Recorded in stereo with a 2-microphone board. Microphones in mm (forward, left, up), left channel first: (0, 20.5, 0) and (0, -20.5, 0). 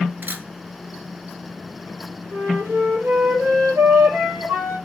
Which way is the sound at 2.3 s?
75° right (ahead or behind).